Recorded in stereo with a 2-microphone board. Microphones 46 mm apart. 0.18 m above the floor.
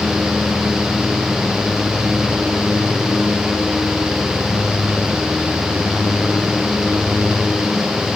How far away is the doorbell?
I don't hear a doorbell.